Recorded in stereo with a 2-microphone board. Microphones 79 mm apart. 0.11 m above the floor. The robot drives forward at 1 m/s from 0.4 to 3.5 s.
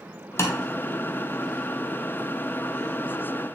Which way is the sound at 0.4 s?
35° left (ahead or behind).